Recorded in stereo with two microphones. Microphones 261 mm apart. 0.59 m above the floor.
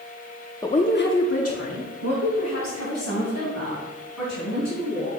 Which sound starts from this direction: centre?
A woman speaking, at 0.6 s.